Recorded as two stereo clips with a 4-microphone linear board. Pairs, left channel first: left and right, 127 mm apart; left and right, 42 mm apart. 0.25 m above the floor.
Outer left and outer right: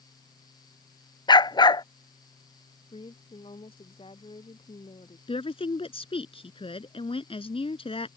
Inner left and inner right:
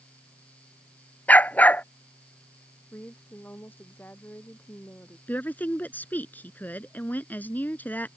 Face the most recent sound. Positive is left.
turn(degrees=45)  # may be behind; listen again after turning